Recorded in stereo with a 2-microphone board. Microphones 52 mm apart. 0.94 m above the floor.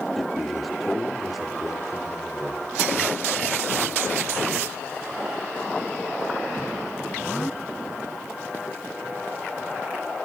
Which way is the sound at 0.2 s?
Centre (ahead or behind).